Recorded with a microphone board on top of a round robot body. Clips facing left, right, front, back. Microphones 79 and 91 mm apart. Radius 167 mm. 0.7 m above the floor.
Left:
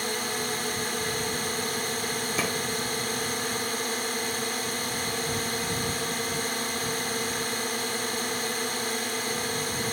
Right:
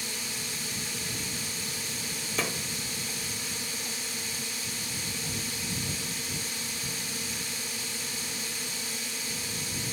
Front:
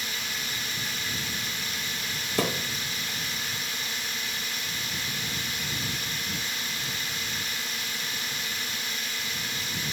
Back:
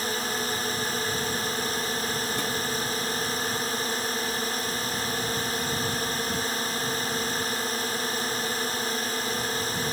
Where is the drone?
130° left.